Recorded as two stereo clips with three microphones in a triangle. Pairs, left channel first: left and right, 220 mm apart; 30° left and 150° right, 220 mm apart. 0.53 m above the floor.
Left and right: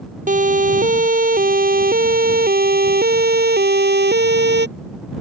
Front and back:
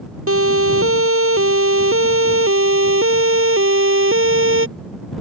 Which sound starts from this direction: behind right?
A siren, at 0.3 s.